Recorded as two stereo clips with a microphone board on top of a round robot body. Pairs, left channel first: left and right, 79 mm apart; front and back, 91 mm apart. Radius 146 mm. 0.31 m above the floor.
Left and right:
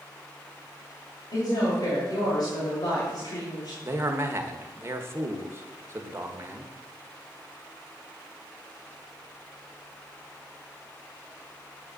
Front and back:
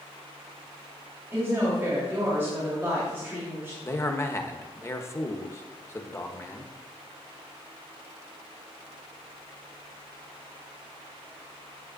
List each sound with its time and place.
1.3 s a woman speaking: 115° left, 3 m
3.8 s a man speaking: 45° right, 1.3 m